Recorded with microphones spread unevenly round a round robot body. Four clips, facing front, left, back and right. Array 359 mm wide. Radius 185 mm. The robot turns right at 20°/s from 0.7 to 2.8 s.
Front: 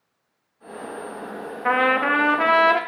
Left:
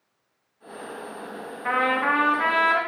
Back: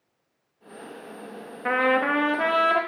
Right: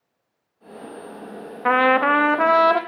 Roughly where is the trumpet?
Right.